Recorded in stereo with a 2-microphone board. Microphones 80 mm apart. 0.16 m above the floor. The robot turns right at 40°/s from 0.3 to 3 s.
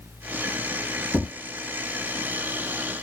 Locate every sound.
1.1 s tapping: 40° right (ahead or behind), 3 m; by 1.3 s 45° right (ahead or behind), 3 m